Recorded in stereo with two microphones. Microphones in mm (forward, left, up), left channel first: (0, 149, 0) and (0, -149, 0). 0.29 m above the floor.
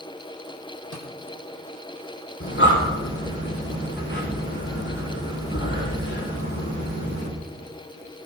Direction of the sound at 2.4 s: 45° left (ahead or behind).